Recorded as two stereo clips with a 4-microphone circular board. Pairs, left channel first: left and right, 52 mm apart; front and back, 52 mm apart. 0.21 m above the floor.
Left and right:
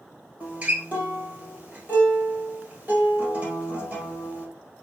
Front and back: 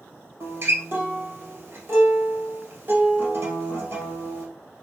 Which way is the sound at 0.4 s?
155° right.